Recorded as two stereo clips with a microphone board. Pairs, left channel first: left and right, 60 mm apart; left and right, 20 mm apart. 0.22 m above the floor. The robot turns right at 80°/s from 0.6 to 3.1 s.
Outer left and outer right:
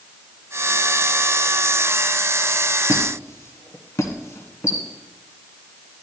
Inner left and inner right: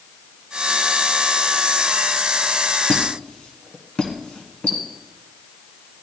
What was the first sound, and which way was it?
A squeak, 60° left (ahead or behind).